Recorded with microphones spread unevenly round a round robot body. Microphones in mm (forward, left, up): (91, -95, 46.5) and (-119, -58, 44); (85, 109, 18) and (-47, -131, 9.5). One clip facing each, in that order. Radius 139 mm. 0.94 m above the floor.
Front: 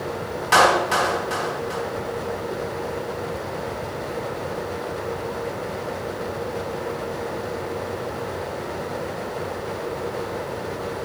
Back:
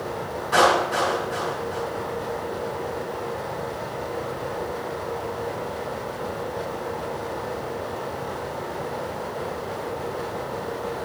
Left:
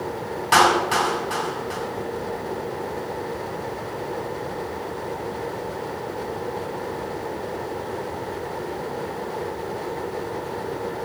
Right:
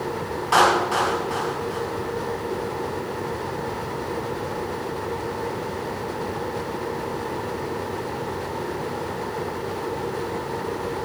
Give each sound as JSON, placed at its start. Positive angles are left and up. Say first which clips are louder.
{"t": 0.5, "sound": "a clap", "louder": "front 1 dB, even", "azimuth_deg": 10, "distance_m": 6.0}